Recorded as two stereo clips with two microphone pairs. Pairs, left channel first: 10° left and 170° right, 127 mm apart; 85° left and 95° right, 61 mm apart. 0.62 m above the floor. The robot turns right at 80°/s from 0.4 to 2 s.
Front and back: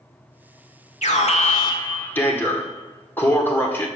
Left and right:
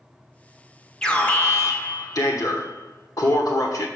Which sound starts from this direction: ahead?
An alarm, at 1.0 s.